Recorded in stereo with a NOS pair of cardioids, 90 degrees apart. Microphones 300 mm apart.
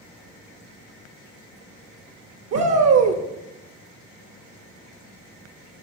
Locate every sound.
2.5 s a shout: 55° right, 0.8 m